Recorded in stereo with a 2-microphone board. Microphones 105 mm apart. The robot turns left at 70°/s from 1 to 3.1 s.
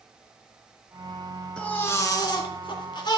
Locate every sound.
1.6 s a baby crying: 170° left, 1.6 m; by 3.2 s 60° left, 1.6 m